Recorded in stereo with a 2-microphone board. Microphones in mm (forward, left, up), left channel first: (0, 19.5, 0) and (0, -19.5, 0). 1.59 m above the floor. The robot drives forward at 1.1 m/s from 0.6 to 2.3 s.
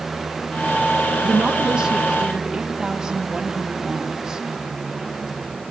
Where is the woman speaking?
30° right (ahead or behind), 1.3 m; by 4.5 s 15° right (ahead or behind), 2.5 m.